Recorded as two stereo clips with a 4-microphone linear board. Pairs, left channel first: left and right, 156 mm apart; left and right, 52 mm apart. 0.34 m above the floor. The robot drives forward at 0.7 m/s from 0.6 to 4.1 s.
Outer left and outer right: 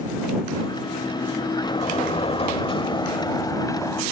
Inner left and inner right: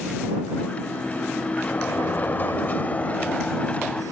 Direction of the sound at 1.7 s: 35° left (ahead or behind).